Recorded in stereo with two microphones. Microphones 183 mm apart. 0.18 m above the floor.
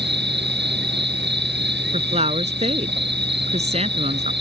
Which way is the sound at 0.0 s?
85° right.